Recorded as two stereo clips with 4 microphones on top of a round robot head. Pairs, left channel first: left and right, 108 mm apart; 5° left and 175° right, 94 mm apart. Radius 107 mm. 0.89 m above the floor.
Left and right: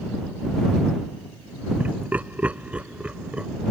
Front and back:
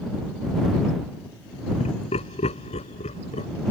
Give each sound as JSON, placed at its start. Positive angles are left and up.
{"t": 1.8, "sound": "laughter", "azimuth_deg": -15}